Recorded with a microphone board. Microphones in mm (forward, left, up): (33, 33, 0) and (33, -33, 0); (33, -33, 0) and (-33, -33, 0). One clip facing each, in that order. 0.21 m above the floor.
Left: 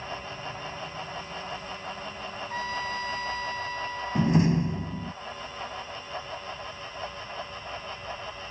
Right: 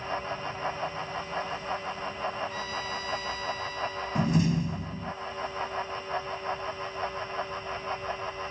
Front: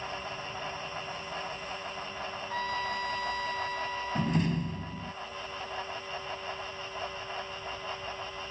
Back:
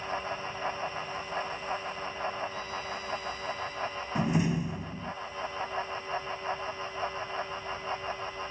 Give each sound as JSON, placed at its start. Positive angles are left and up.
{"t": 2.5, "sound": "a trumpet", "azimuth_deg": 35}
{"t": 4.2, "sound": "a door slam", "azimuth_deg": 110}